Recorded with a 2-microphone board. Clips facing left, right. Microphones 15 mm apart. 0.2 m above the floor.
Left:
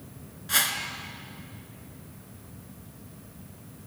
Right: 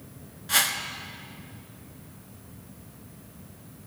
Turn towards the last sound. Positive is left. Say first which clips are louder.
# right 2 dB
turn(degrees=0)  # may be behind; listen again after turning